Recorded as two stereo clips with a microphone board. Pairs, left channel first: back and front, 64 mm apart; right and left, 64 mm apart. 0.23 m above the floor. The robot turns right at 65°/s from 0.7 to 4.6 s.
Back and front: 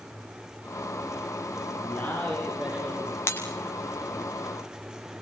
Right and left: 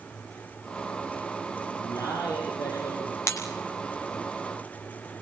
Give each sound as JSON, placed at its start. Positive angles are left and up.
{"t": 1.7, "sound": "a man speaking", "azimuth_deg": -135, "distance_m": 8.0}
{"t": 3.3, "sound": "breaking glass", "azimuth_deg": -130, "distance_m": 6.0}